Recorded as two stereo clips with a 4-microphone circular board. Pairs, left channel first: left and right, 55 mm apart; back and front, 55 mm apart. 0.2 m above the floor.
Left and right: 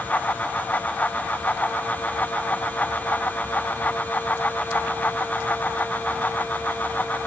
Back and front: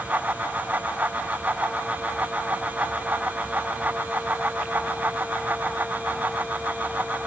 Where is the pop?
No pop in this recording.